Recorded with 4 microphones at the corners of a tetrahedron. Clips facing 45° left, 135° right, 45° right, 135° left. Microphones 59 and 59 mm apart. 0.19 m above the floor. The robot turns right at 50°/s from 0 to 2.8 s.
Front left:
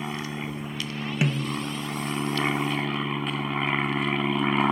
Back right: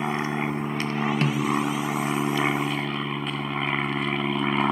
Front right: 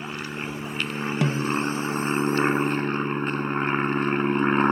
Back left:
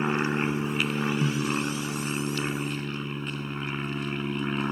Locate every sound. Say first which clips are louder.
0.0 s an aircraft: back right 6 dB, back left 6 dB; 175° left; by 4.7 s 45° right
1.2 s a snare drum: even, front right 3 dB; 30° right; by 1.6 s 10° right